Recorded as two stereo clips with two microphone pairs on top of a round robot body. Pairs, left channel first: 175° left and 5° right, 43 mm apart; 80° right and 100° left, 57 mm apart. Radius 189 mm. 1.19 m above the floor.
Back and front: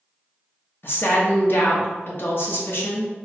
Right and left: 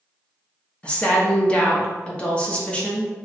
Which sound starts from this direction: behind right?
A woman speaking, at 0.8 s.